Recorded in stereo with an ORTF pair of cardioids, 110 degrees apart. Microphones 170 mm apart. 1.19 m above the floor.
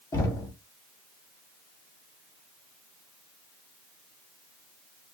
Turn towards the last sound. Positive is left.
turn(degrees=20)